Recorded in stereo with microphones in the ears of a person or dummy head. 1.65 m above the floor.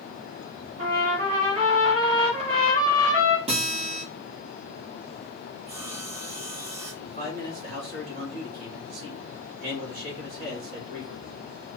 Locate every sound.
0.8 s a trumpet: 60° right (ahead or behind), 3 m
3.5 s a guitar: 35° right (ahead or behind), 3.5 m
5.7 s sawing: 30° right (ahead or behind), 1.7 m
7.0 s a man speaking: 50° right (ahead or behind), 3.5 m